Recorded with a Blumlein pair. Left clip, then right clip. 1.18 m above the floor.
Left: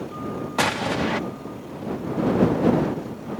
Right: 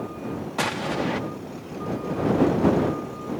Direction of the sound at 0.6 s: 10° left.